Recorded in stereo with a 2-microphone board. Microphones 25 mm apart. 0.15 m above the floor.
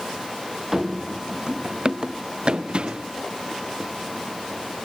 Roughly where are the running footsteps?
Centre.